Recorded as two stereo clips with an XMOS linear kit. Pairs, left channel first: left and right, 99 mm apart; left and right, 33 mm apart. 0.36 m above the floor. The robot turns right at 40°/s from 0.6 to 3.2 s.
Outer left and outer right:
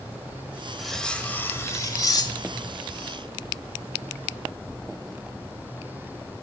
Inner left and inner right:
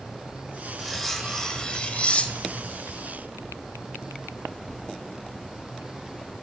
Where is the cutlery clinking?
Straight ahead, 0.8 m; by 2.7 s 75° left, 0.8 m.